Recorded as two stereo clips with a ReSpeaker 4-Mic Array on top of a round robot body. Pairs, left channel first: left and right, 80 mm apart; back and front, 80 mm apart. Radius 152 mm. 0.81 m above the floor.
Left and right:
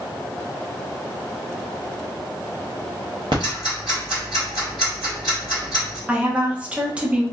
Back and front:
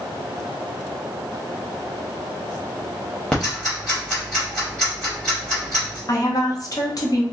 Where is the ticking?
100° right, 0.6 m.